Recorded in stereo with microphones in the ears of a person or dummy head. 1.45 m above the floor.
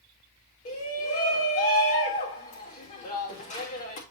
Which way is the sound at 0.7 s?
40° left (ahead or behind).